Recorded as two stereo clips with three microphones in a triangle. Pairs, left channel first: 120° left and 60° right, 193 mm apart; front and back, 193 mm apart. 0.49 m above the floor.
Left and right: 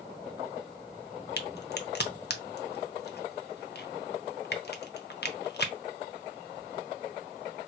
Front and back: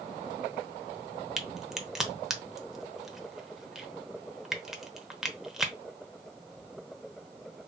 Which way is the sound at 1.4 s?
95° left.